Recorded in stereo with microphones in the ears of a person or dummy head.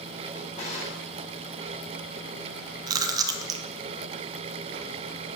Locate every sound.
0.3 s a drawer: 45° left (ahead or behind), 2.5 m
2.9 s chewing: 30° right (ahead or behind), 1.0 m